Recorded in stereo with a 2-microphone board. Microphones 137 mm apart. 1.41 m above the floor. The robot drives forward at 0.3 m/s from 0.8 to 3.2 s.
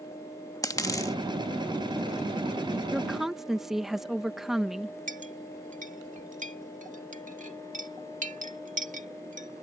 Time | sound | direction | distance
0.6 | a dropped coin | 25° left (ahead or behind) | ?
2.9 | a woman speaking | 5° right (ahead or behind) | ?
5.1 | a clink | 70° right (ahead or behind) | ?